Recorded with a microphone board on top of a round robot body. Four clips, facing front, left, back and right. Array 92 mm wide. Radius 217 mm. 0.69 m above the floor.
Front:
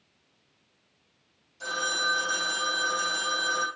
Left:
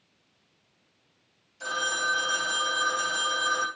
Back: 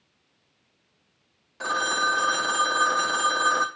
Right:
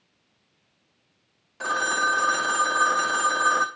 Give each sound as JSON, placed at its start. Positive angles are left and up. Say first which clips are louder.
{"t": 1.6, "sound": "a phone ringing", "louder": "right 5 dB, back 5 dB", "azimuth_deg": -130, "distance_m": 0.6}